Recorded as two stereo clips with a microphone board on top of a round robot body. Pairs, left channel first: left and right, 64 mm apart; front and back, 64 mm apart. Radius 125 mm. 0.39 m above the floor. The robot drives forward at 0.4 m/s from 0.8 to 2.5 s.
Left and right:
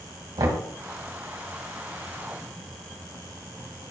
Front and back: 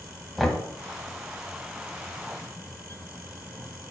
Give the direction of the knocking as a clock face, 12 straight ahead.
3 o'clock.